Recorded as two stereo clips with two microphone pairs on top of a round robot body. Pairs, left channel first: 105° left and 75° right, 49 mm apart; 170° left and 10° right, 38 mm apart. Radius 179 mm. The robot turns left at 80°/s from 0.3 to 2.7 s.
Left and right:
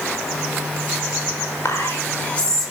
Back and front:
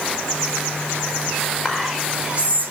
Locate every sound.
1.6 s whispering: 105° left, 5.5 m; by 2.7 s 20° left, 5.5 m